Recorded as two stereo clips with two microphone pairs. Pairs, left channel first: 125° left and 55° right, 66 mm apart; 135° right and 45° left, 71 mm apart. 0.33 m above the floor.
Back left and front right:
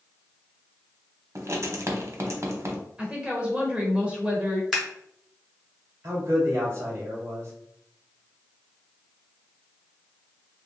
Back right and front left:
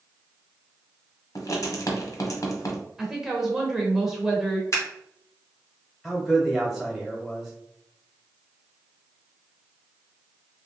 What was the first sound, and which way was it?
Writing, 100° right.